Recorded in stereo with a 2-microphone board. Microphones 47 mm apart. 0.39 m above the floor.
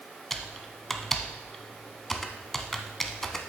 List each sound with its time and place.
0.3 s typing on a keyboard: 5° left (ahead or behind), 0.7 m